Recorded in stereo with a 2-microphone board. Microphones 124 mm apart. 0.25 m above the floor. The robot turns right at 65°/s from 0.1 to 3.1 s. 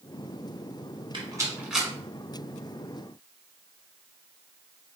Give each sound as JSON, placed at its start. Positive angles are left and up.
{"t": 1.1, "sound": "a rattle", "side_deg": -40, "distance_m": 1.0}